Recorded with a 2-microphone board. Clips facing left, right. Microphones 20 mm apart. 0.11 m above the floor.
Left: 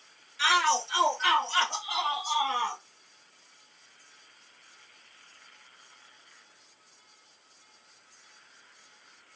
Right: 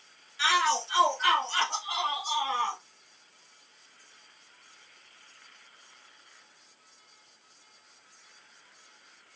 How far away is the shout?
About 1.8 m.